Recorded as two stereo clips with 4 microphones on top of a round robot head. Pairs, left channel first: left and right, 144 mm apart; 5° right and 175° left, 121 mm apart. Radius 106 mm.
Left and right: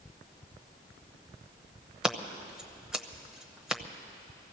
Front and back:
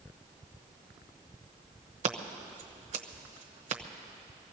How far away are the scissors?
About 0.9 m.